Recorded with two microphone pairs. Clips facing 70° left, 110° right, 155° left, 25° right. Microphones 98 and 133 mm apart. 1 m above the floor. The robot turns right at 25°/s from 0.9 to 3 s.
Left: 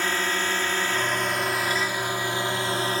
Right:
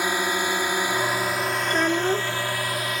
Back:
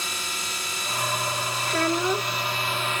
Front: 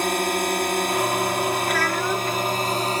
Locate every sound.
0.0 s a drone: 35° right; by 3.0 s 20° left
1.7 s a child speaking: 145° right; by 2.4 s 125° right